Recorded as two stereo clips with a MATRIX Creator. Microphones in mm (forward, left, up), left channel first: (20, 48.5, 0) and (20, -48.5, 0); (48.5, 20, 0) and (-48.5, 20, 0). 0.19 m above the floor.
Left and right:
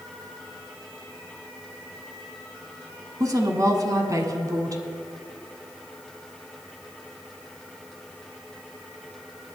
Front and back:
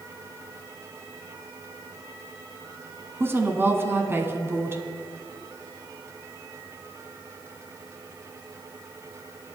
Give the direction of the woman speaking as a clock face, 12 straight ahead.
4 o'clock.